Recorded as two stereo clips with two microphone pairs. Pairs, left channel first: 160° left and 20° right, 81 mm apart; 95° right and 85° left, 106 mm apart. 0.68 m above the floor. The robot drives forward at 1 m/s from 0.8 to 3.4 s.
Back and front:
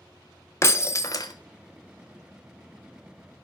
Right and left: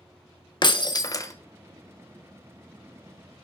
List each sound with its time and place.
0.6 s breaking glass: 145° right, 0.8 m; by 1.3 s 160° right, 1.3 m